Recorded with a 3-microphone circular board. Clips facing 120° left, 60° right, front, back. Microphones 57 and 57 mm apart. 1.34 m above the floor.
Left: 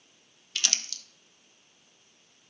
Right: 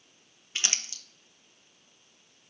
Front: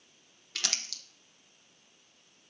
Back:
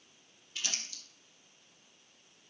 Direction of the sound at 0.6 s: 5° left.